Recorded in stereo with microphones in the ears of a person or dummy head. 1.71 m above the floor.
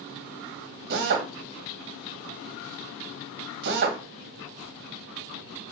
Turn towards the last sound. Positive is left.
turn(degrees=-55)  # may be behind; listen again after turning